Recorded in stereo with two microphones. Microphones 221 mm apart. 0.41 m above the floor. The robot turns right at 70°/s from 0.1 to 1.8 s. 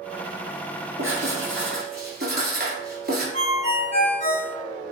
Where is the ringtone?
35° left (ahead or behind), 1.0 m.